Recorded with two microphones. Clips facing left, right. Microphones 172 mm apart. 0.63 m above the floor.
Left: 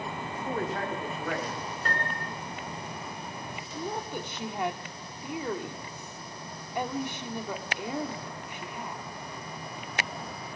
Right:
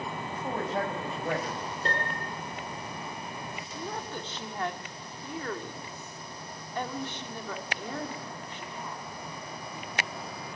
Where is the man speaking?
35° right (ahead or behind), 5 m; by 1.6 s 25° right (ahead or behind), 4 m.